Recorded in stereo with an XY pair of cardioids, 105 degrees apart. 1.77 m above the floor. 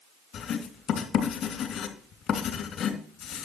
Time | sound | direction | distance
0.3 | writing | 70° left | 3 m